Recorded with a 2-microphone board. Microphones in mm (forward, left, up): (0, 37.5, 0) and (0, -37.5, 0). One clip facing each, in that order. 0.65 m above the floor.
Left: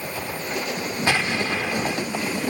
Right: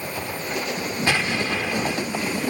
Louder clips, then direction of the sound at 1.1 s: Left 1 dB; 15° left (ahead or behind).